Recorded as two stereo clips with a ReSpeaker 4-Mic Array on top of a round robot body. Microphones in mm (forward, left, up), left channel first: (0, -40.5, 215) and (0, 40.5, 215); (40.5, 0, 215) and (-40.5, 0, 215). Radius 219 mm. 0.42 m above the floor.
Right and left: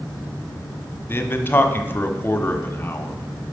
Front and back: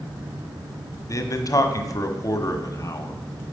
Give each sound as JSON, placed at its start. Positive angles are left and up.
{"t": 1.1, "sound": "a man speaking", "azimuth_deg": -35, "distance_m": 1.7}